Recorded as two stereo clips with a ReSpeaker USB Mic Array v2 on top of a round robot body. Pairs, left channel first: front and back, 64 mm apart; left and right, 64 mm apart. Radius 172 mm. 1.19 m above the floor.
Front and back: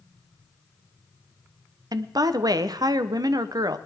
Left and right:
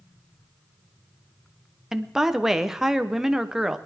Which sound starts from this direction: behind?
A woman speaking, at 1.9 s.